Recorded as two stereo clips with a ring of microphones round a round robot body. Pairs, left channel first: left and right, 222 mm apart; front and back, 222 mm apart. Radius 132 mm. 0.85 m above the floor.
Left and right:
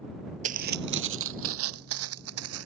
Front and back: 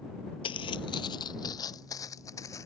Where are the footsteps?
55° right; by 2.7 s 80° right.